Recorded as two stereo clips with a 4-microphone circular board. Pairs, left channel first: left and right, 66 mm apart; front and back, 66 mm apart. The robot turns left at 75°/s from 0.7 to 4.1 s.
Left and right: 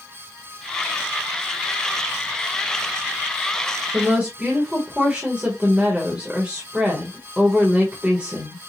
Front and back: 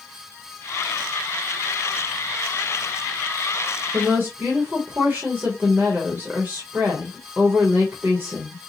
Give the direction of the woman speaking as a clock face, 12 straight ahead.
5 o'clock.